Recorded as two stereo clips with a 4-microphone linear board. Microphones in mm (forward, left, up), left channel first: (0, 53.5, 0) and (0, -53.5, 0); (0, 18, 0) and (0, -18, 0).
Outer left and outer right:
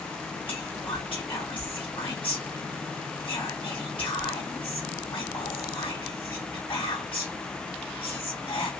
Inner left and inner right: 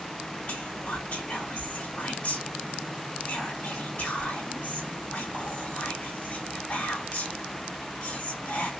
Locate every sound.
0.5 s whispering: 55° left (ahead or behind), 2.5 m